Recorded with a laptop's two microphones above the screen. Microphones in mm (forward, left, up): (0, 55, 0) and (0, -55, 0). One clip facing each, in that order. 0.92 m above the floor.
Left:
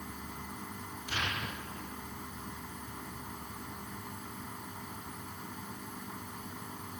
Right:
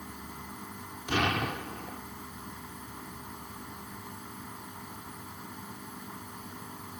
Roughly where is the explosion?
Right.